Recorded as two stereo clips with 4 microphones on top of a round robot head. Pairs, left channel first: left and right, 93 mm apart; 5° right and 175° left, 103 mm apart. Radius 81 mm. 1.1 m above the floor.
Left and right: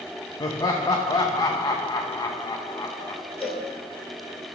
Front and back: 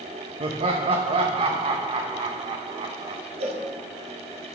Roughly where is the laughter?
Behind left.